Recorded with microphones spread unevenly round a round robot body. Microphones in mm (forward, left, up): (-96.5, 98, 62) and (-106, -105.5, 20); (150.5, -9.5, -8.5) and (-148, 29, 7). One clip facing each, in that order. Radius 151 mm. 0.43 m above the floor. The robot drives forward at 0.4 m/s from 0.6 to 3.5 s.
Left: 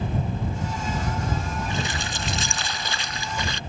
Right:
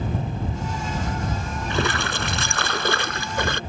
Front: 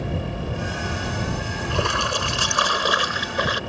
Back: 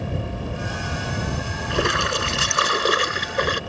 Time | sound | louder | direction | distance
1.7 | a splash | right 5 dB, back 4 dB | 115° right | ?